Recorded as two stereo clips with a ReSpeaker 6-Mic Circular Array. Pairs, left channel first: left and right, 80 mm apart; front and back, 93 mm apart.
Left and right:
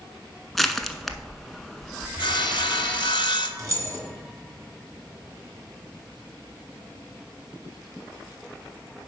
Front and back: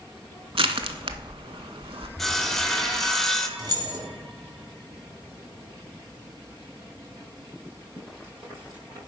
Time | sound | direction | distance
0.6 | crushing | straight behind | 0.5 m
2.2 | sawing | 90° left | 0.6 m
3.6 | keys jangling | 140° right | 1.9 m